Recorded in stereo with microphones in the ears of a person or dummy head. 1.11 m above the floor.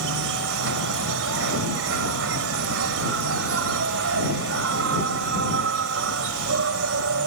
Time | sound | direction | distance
0.0 | an insect | 65° right (ahead or behind) | ?